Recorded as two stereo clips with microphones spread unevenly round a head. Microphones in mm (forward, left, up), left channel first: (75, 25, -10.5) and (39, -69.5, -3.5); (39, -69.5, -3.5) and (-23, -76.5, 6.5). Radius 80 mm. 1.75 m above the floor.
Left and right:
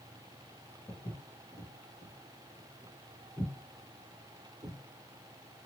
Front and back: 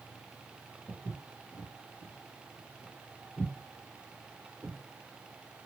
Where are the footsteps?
105° left, 2.0 m; by 4.8 s 85° right, 2.5 m.